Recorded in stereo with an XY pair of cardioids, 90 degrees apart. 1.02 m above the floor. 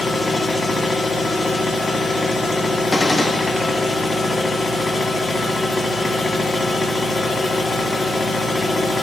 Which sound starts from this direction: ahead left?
A machine running, at 0.0 s.